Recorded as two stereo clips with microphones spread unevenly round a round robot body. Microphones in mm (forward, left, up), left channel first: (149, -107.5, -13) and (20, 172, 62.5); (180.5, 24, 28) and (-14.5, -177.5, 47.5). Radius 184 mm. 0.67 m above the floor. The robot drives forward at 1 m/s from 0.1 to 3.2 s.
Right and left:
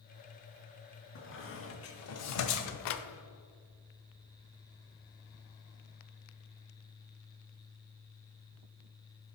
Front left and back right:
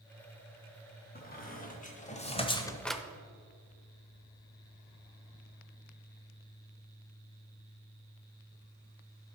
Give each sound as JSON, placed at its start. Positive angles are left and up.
{"t": 1.1, "sound": "a squeak", "azimuth_deg": -15, "distance_m": 2.5}